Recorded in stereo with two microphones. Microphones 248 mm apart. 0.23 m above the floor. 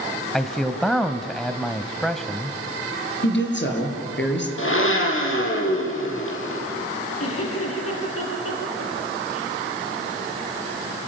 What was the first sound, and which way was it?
A man speaking, centre (ahead or behind).